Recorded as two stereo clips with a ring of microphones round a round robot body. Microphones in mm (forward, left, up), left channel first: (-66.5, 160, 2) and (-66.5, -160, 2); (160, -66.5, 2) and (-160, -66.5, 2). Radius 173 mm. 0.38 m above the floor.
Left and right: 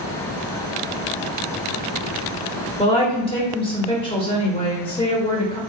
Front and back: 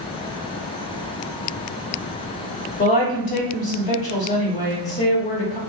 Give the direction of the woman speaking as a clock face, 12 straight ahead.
11 o'clock.